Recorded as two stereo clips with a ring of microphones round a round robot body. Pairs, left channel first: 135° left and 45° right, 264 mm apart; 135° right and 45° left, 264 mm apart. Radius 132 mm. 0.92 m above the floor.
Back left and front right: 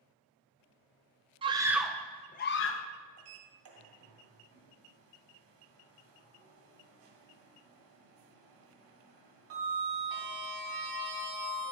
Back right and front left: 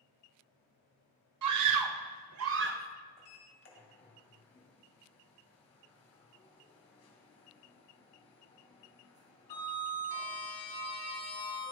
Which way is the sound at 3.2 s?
65° right.